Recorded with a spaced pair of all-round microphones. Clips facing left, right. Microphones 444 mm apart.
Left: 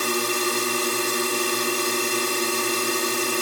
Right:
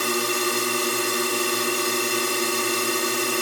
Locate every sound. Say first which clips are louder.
0.0 s a drone: even; centre (ahead or behind)